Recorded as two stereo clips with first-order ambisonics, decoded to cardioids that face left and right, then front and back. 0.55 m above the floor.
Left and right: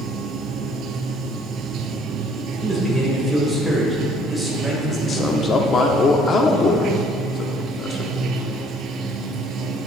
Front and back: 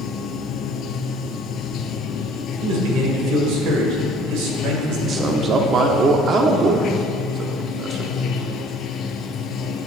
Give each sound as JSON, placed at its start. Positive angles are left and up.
{"t": 0.0, "sound": "running water", "azimuth_deg": -45, "distance_m": 0.8}
{"t": 2.6, "sound": "a man speaking", "azimuth_deg": -175, "distance_m": 2.5}
{"t": 5.1, "sound": "a man speaking", "azimuth_deg": 140, "distance_m": 0.7}